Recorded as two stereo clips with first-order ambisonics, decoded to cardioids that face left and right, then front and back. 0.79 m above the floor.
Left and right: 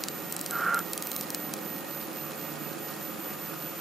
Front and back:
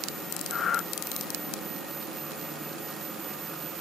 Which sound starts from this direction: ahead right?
Breathing, at 0.5 s.